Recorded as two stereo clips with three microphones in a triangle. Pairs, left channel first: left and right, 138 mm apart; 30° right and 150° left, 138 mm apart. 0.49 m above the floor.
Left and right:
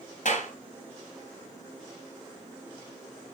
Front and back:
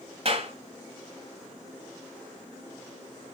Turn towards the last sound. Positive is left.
turn(degrees=110)